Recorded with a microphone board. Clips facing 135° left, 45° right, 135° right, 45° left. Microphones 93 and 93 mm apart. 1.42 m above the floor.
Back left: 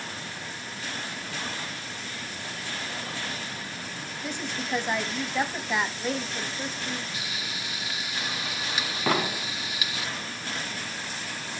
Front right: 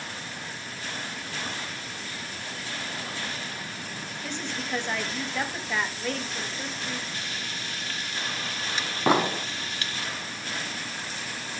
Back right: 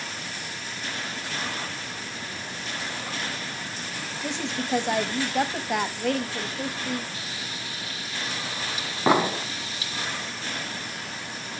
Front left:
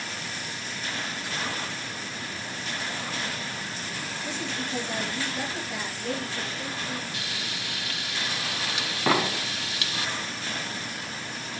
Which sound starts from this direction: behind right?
A woman speaking, at 4.2 s.